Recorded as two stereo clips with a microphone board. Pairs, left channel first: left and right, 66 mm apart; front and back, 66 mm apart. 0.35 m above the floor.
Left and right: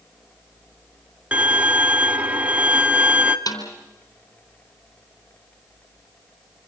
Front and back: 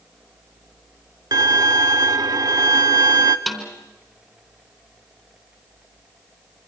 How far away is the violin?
About 0.8 m.